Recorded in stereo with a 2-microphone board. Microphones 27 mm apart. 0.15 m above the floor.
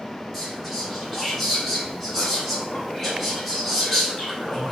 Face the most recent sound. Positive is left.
turn(degrees=0)  # may be behind; listen again after turning